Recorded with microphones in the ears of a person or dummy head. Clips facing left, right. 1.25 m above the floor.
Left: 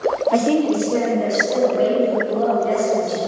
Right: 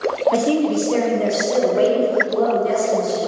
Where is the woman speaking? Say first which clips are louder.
Left 2 dB; 5° right (ahead or behind), 1.1 m; by 3.2 s 50° right (ahead or behind), 4.5 m.